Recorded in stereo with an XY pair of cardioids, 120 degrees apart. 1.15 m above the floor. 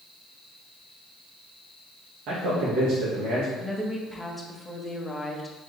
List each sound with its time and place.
2.3 s a man speaking: 70° right, 1.4 m
3.6 s a woman speaking: 10° left, 1.0 m